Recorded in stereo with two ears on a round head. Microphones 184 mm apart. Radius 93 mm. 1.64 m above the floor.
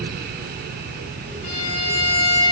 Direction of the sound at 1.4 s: 40° left (ahead or behind).